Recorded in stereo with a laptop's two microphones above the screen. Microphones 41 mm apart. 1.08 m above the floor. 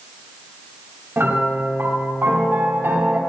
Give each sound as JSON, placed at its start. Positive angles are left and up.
{"t": 1.2, "sound": "a piano", "side_deg": -70, "distance_m": 2.0}